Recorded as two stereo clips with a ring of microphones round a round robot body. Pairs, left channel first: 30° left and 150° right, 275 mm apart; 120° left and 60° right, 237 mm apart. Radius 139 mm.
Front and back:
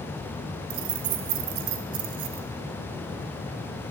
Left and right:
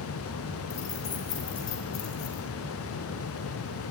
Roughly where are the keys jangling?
Behind.